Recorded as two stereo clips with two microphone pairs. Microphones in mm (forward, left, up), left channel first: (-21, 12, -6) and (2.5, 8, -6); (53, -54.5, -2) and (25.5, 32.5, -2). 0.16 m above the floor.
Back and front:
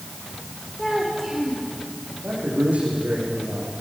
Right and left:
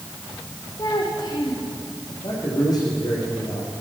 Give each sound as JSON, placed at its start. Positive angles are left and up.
{"t": 0.8, "sound": "a child speaking", "azimuth_deg": -115, "distance_m": 5.0}
{"t": 2.2, "sound": "a man speaking", "azimuth_deg": -25, "distance_m": 8.5}